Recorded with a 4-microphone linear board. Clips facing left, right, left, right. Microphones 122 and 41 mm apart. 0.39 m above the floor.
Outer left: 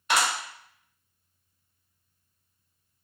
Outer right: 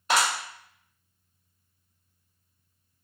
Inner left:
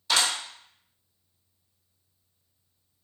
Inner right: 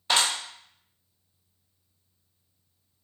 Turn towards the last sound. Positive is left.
turn(degrees=-40)  # may be behind; listen again after turning